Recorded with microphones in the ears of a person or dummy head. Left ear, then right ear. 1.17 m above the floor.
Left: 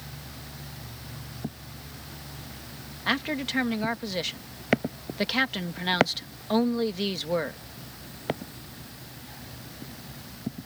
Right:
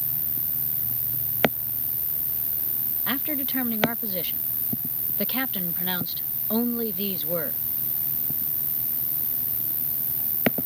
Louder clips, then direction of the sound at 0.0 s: Right 2 dB; 80° right.